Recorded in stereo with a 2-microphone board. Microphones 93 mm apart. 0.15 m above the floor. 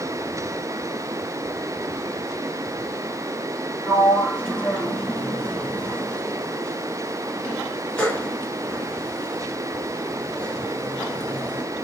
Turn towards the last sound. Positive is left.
turn(degrees=10)  # may be behind; listen again after turning